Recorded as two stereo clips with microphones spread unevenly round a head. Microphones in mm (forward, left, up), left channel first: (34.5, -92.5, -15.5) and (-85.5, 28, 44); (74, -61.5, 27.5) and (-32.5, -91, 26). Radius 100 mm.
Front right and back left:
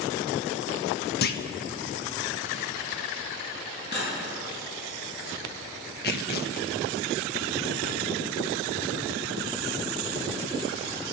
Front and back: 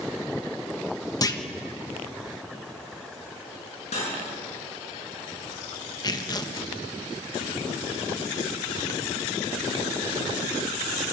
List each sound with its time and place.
1.2 s a clunk: 40° right, 1.5 m
3.9 s cutlery clinking: straight ahead, 9 m
6.0 s tearing paper: 40° right, 1.5 m